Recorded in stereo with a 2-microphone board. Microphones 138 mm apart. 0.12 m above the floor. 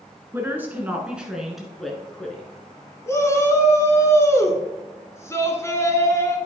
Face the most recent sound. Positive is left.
turn(degrees=20)  # may be behind; listen again after turning